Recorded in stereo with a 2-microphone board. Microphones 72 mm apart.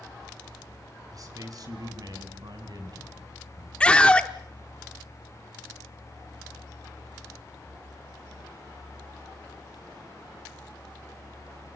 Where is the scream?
10° left (ahead or behind), 0.9 m.